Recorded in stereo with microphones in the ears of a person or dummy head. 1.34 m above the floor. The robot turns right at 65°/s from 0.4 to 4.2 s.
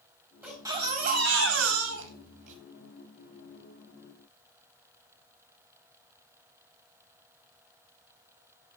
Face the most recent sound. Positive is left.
turn(degrees=65)